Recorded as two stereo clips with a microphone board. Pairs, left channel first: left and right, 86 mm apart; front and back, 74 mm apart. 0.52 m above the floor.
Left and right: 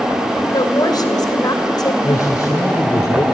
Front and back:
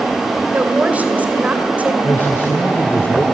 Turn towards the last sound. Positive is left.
turn(degrees=55)